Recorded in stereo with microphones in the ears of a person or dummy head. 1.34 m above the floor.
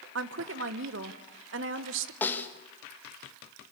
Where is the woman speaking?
65° right (ahead or behind), 1.1 m.